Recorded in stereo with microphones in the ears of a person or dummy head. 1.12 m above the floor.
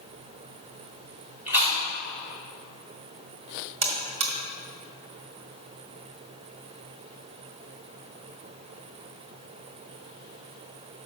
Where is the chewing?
15° right (ahead or behind), 2 m.